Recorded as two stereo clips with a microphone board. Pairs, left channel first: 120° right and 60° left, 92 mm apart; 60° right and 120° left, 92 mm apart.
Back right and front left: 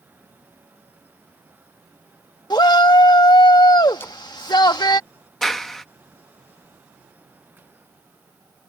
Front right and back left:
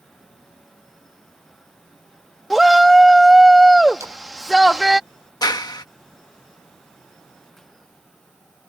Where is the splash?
175° left.